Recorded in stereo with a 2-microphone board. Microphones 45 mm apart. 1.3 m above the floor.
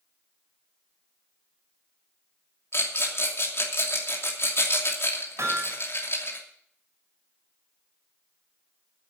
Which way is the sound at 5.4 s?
75° right (ahead or behind).